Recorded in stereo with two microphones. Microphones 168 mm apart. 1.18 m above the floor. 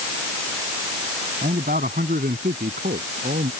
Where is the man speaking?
60° right (ahead or behind); by 3.5 s 65° right (ahead or behind).